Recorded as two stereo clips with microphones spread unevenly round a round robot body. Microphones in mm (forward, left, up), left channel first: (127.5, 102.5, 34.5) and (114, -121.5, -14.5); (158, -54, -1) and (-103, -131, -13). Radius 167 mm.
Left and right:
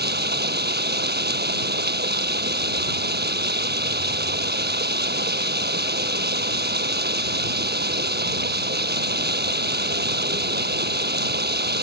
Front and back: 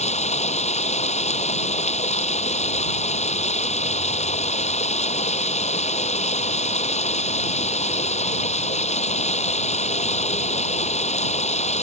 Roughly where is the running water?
Ahead right.